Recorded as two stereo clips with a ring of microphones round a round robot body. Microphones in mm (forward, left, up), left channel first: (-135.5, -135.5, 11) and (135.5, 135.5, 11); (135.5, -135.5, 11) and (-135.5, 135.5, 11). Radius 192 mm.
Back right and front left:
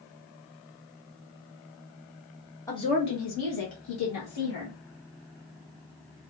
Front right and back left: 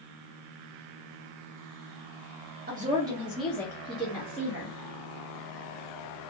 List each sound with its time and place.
2.7 s a woman speaking: 150° left, 0.7 m; by 4.8 s 115° right, 1.8 m